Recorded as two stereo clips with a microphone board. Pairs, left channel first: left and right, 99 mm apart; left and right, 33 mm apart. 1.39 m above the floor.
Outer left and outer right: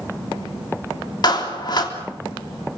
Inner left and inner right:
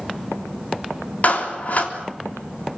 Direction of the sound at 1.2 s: 50° left (ahead or behind).